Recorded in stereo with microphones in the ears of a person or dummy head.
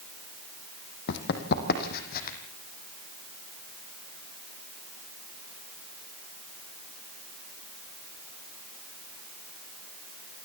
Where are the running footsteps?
60° left (ahead or behind), 3 m; by 2.4 s 45° left (ahead or behind), 3.5 m.